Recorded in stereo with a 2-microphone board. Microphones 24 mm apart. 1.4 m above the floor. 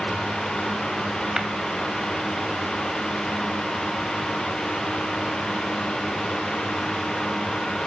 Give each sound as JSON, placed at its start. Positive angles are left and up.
{"t": 1.4, "sound": "tapping", "side_deg": -20, "distance_m": 2.0}